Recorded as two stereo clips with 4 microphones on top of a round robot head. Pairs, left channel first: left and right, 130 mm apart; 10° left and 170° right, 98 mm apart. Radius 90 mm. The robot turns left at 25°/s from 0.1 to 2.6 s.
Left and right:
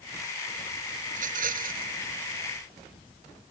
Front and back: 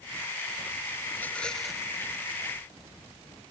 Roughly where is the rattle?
Ahead right.